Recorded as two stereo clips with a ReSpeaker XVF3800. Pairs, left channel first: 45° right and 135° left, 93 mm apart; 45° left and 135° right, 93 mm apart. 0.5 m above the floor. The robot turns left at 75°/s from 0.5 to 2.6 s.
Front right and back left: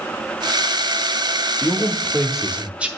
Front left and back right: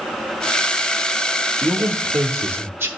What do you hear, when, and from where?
1.6 s a man speaking: 90° right, 0.7 m; by 2.9 s 165° right, 0.7 m